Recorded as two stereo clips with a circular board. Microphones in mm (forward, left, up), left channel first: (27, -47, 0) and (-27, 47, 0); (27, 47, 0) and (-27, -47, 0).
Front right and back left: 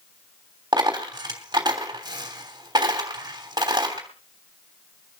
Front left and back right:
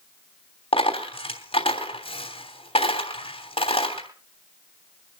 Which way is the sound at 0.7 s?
75° left.